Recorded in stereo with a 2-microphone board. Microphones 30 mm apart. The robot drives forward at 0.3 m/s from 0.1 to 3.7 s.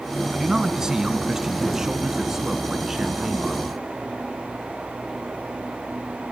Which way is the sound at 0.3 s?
25° right (ahead or behind).